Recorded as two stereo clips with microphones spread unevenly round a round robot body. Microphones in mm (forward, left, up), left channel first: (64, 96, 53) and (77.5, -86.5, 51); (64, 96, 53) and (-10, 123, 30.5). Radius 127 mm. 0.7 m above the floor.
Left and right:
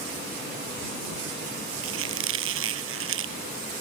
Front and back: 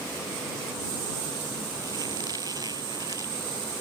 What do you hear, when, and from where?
1.8 s a squeak: 120° right